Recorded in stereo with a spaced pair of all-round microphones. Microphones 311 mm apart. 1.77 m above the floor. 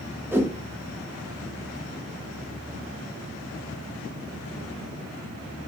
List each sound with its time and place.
0.3 s a whoosh: 5° right (ahead or behind), 0.5 m